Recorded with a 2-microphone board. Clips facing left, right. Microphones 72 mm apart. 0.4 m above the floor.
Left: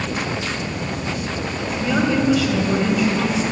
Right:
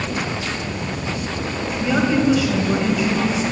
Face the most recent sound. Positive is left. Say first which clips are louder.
# right 1 dB
turn(degrees=-5)  # may be behind; listen again after turning